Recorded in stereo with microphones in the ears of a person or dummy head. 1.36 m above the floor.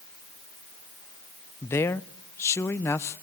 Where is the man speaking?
15° left (ahead or behind), 0.6 m.